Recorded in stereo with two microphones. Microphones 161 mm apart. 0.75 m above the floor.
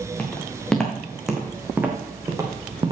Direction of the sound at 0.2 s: 10° left (ahead or behind).